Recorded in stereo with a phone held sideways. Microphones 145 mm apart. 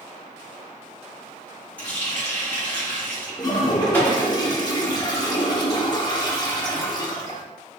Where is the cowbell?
I don't hear a cowbell.